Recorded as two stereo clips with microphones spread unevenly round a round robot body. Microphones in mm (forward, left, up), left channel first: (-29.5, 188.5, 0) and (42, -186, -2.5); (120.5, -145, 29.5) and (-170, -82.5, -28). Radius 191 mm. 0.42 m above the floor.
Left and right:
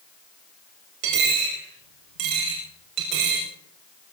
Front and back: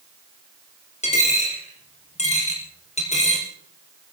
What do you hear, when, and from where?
1.0 s a dropped coin: 80° right, 6.5 m